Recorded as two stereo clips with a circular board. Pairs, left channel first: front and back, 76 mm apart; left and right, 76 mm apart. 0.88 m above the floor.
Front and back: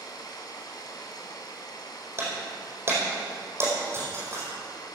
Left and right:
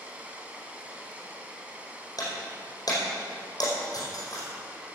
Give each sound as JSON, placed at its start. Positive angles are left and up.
{"t": 0.0, "sound": "running water", "azimuth_deg": -20, "distance_m": 1.6}
{"t": 2.2, "sound": "breaking glass", "azimuth_deg": 125, "distance_m": 4.5}